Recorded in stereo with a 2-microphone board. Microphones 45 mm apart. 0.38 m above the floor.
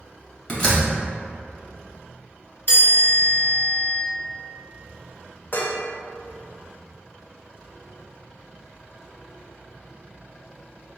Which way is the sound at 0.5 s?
30° left (ahead or behind).